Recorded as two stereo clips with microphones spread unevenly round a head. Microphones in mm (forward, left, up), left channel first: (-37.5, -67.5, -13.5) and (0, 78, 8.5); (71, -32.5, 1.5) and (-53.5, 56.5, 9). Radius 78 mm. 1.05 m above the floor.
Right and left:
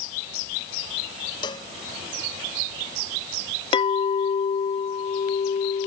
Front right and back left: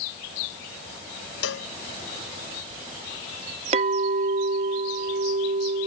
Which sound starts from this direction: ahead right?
A cowbell, at 1.4 s.